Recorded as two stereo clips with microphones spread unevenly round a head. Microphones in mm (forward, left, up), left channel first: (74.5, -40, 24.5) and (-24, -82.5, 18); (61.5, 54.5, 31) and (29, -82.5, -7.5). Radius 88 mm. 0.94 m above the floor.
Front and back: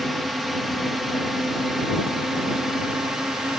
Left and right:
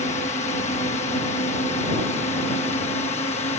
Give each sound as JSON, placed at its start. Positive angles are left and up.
{"t": 0.0, "sound": "a drone", "azimuth_deg": 115}